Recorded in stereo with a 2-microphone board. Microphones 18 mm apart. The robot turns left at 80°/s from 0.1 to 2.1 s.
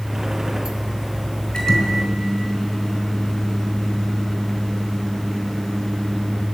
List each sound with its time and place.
1.5 s a microwave: 50° left, 4.5 m; by 6.5 s 5° left, 4.5 m